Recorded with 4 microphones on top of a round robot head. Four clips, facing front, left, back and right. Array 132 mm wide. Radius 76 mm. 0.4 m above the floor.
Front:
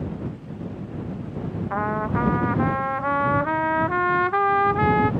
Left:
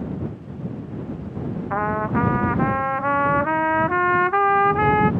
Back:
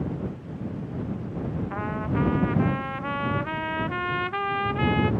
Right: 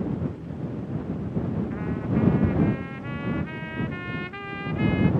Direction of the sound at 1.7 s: 65° left.